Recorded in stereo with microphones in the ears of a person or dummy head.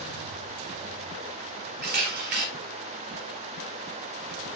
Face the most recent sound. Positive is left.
turn(degrees=-40)  # may be behind; listen again after turning